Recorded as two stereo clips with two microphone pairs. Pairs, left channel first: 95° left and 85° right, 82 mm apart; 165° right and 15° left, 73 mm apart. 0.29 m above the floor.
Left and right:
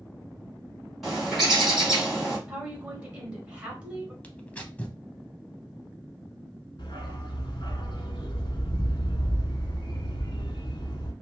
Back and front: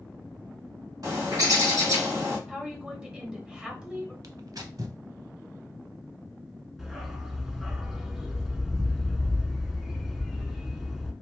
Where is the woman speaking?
35° right, 1.4 m.